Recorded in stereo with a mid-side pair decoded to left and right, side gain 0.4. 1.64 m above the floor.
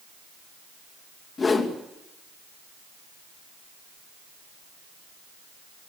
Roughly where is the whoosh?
Ahead left.